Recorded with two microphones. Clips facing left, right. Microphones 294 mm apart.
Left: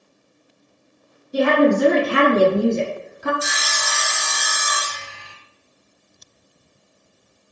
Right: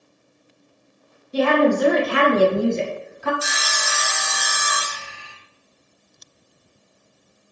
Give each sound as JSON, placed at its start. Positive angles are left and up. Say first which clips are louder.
{"t": 1.3, "sound": "a woman speaking", "louder": "left 2 dB", "side_deg": 15, "distance_m": 1.2}
{"t": 3.4, "sound": "sawing", "louder": "left 1 dB", "side_deg": 0, "distance_m": 1.0}